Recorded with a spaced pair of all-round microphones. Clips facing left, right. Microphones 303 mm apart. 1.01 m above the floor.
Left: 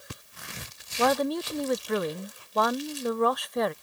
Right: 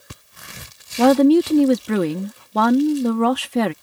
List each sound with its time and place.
1.0 s a woman speaking: 85° right